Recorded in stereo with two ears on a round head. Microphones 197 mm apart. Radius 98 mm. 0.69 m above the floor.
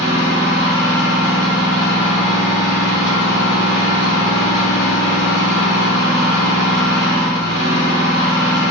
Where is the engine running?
90° left, 1.9 m.